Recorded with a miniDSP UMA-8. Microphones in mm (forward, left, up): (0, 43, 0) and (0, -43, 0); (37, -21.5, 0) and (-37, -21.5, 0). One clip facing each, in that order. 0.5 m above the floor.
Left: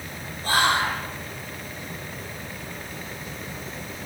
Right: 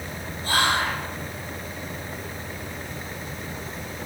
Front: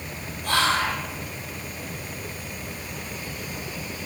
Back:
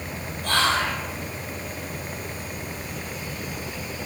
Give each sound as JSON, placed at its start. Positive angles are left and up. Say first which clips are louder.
{"t": 0.4, "sound": "whispering", "louder": "left 1 dB, even", "azimuth_deg": 75, "distance_m": 1.5}